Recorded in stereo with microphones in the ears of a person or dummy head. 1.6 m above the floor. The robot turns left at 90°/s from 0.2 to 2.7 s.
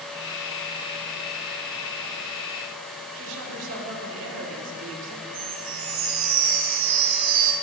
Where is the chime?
35° right (ahead or behind), 1.4 m.